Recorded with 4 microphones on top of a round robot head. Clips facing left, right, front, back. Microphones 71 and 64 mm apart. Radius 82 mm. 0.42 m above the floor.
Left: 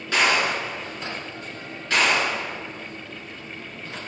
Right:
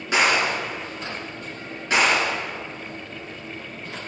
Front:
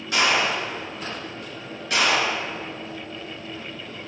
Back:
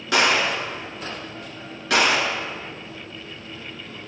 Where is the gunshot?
165° right, 5.5 m.